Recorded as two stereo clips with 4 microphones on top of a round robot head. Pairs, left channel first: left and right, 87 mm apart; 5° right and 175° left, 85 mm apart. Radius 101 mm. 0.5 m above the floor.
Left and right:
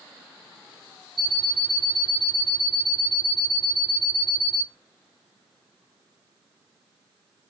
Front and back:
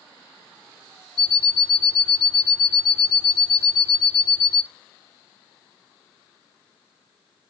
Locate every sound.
1.2 s an alarm clock: straight ahead, 1.0 m